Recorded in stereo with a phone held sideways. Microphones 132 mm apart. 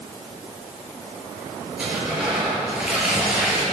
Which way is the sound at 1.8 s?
10° right (ahead or behind).